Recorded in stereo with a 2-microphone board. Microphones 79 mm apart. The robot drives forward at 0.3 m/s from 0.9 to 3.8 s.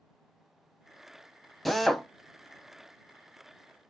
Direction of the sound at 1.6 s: Centre (ahead or behind).